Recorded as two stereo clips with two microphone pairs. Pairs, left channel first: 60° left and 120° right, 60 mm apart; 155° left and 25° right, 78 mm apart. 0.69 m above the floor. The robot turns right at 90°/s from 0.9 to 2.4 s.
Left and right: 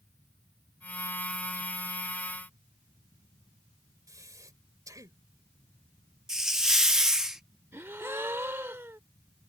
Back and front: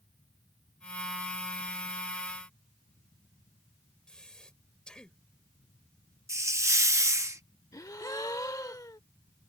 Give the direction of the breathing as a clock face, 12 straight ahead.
4 o'clock.